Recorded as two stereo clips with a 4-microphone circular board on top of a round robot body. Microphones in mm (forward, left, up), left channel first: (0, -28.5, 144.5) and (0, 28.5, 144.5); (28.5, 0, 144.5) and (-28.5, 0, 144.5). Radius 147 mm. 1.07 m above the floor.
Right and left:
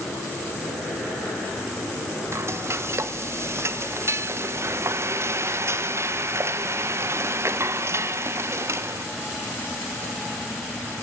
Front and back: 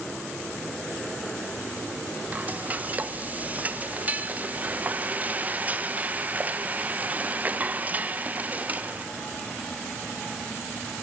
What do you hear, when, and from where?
2.3 s frying: 125° left, 1.5 m